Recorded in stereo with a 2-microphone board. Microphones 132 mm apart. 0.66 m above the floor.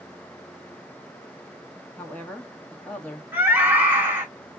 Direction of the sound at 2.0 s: 10° left (ahead or behind).